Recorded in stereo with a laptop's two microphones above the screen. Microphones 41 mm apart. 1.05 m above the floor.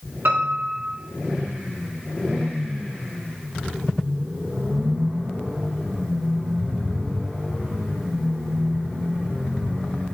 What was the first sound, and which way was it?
A piano, 60° right (ahead or behind).